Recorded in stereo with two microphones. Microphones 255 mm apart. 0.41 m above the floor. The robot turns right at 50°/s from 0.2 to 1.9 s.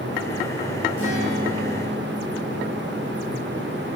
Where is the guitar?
60° right, 4 m; by 3.5 s 15° right, 4 m.